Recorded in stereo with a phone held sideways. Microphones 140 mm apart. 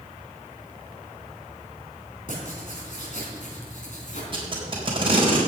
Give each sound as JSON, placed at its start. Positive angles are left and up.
{"t": 2.3, "sound": "writing", "side_deg": 60, "distance_m": 3.5}
{"t": 4.3, "sound": "tape being pulled", "side_deg": -35, "distance_m": 4.0}